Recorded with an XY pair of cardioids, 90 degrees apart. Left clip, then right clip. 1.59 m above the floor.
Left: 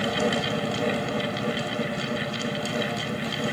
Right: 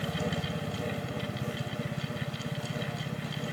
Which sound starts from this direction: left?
A fan, at 0.0 s.